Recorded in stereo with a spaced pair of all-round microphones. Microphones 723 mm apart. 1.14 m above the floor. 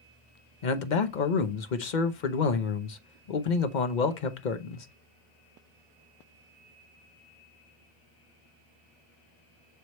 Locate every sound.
0.6 s a man speaking: 85° left, 1.0 m